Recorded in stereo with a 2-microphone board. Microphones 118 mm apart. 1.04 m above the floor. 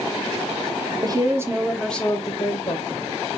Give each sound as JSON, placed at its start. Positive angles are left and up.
{"t": 1.0, "sound": "a woman speaking", "side_deg": -35, "distance_m": 0.8}